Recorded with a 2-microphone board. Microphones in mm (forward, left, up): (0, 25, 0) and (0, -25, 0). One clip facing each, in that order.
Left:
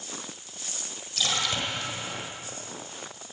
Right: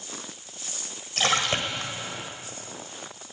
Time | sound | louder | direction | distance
1.2 | a splash | right 4 dB | 50° right (ahead or behind) | 1.6 m